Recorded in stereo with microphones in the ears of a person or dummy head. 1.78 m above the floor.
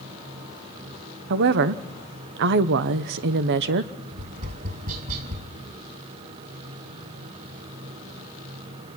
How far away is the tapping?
About 6.5 m.